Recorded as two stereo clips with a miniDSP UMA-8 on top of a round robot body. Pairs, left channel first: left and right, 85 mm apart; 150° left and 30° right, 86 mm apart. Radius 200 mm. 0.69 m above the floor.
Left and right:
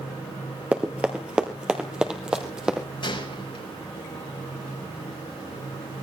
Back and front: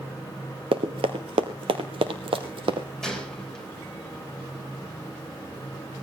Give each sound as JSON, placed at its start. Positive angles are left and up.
{"t": 0.7, "sound": "running footsteps", "azimuth_deg": -15, "distance_m": 1.1}
{"t": 3.0, "sound": "a gunshot", "azimuth_deg": 65, "distance_m": 5.0}